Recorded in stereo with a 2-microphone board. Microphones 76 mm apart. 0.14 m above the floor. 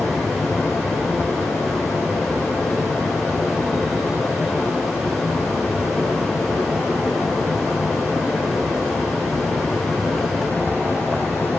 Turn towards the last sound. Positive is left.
turn(degrees=25)  # may be behind; listen again after turning